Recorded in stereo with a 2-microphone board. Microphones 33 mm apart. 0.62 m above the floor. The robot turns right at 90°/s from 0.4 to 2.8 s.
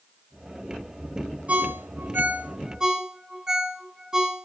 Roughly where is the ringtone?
Right.